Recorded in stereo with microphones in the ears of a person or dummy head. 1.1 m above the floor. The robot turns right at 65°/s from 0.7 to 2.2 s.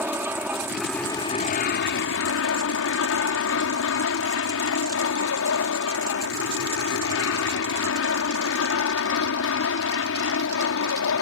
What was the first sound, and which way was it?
An aircraft, 10° right.